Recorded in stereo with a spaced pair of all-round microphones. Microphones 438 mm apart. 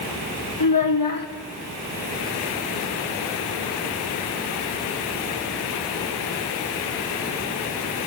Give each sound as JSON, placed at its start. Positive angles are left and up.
{"t": 0.6, "sound": "a child speaking", "side_deg": 50, "distance_m": 1.6}